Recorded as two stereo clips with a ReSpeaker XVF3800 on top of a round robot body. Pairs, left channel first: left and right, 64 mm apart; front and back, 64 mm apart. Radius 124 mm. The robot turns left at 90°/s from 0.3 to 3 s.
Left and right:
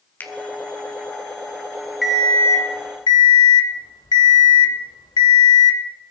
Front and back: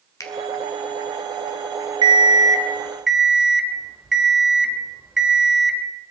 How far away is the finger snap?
About 2 m.